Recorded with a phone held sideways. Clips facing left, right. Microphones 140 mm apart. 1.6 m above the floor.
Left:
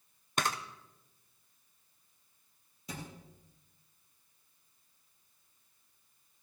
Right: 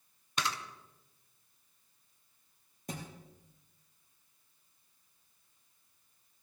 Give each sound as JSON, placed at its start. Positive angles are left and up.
{"t": 0.4, "sound": "a camera shutter", "side_deg": 50, "distance_m": 0.9}
{"t": 2.9, "sound": "a thud", "side_deg": -50, "distance_m": 4.5}